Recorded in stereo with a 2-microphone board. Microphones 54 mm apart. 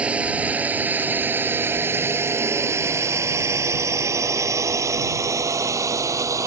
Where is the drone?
25° right (ahead or behind); by 6.5 s 75° right (ahead or behind).